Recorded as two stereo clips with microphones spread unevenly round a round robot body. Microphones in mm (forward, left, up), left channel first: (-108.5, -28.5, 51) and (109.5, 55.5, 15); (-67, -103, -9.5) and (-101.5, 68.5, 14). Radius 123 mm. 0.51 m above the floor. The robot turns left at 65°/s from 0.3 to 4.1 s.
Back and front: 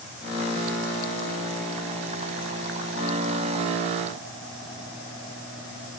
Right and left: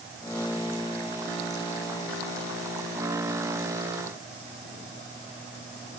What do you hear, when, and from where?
Only background noise.